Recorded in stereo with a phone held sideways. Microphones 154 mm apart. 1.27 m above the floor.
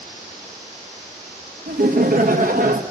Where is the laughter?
65° right (ahead or behind), 1.5 m.